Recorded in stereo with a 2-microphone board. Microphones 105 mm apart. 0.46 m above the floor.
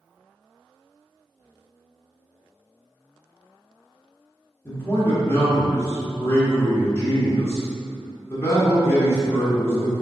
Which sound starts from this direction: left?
A man speaking, at 4.7 s.